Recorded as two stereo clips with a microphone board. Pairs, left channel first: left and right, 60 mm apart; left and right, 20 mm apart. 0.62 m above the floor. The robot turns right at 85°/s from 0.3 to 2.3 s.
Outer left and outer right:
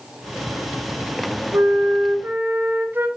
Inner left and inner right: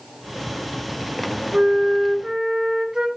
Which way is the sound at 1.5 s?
110° right.